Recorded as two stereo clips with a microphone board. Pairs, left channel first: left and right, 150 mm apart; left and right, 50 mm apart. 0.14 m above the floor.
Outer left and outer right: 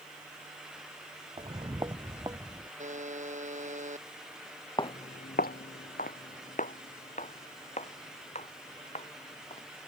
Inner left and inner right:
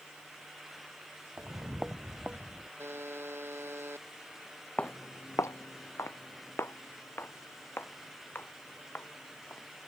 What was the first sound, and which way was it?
Footsteps, 35° right (ahead or behind).